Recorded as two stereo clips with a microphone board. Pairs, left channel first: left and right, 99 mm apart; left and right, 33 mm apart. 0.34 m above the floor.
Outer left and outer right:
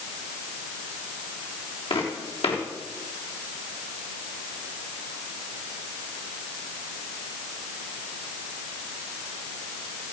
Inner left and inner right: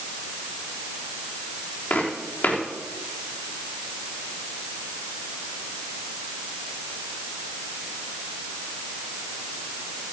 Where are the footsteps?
65° left (ahead or behind), 3.5 m.